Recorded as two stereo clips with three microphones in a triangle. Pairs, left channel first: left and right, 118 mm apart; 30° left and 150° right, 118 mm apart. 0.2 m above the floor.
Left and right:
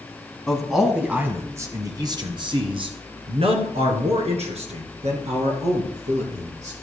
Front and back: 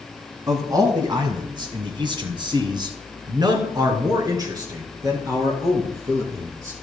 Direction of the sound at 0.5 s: 175° left.